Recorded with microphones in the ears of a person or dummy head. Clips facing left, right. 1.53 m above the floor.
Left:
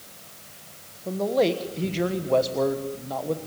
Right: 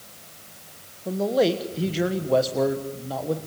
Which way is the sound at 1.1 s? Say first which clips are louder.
Right 1 dB; 5° right (ahead or behind).